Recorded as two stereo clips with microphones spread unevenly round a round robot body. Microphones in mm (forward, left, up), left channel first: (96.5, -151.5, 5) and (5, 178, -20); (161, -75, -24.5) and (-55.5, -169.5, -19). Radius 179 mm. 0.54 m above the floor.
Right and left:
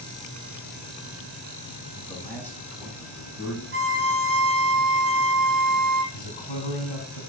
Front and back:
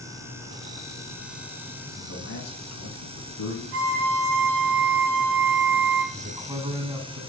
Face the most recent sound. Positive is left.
turn(degrees=-85)